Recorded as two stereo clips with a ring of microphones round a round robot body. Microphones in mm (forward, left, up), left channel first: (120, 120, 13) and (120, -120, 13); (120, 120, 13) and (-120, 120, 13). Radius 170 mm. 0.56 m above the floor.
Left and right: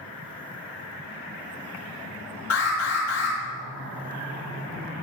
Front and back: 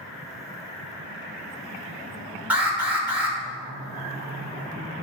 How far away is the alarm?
About 2.5 m.